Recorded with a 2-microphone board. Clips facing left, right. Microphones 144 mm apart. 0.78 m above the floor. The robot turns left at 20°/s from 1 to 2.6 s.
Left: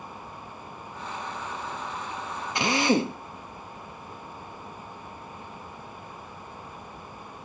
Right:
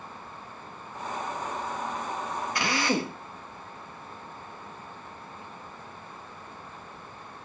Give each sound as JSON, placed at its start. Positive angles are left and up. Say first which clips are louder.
{"t": 2.5, "sound": "a drill", "louder": "left 5 dB", "side_deg": 20, "distance_m": 1.0}